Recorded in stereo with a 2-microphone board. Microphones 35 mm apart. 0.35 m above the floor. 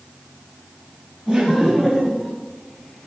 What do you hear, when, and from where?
1.3 s laughter: 15° right (ahead or behind), 2.5 m; by 2.3 s 10° left (ahead or behind), 2.0 m